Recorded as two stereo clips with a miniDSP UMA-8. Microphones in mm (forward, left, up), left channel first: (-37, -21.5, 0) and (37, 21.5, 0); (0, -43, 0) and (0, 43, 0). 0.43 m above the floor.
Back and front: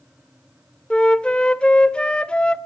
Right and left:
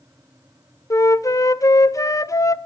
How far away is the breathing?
No breathing in this recording.